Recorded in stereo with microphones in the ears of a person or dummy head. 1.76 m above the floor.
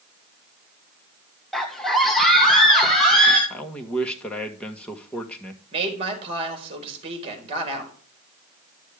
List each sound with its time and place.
1.5 s a scream: 5° left (ahead or behind), 0.7 m
3.5 s a man speaking: 10° left (ahead or behind), 1.5 m
5.7 s a woman speaking: 30° right (ahead or behind), 4 m